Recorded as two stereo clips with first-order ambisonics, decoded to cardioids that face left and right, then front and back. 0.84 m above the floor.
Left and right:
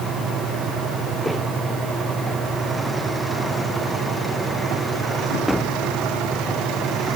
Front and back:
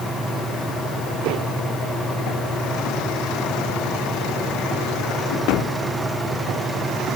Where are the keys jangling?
No keys jangling in this recording.